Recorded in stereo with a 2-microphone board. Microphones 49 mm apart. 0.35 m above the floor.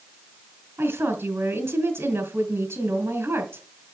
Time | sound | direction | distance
0.8 | a woman speaking | 55° right (ahead or behind) | 2.5 m